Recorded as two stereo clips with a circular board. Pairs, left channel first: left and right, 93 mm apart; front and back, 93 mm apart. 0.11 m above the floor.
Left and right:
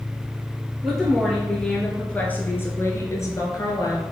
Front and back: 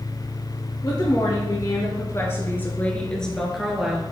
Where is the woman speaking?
Straight ahead, 2.5 m; by 4.0 s 100° left, 2 m.